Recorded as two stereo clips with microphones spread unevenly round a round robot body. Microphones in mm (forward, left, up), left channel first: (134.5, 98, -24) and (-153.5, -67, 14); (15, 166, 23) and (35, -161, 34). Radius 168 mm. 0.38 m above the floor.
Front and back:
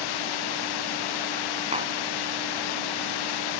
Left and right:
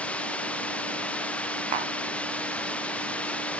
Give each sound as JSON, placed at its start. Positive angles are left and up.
{"t": 0.0, "sound": "running water", "azimuth_deg": 5}
{"t": 1.7, "sound": "tapping", "azimuth_deg": -75}